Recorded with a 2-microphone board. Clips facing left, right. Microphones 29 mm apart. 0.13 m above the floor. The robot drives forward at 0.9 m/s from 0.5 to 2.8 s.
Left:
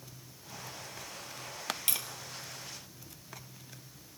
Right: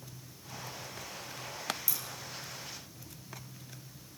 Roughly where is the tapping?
Left.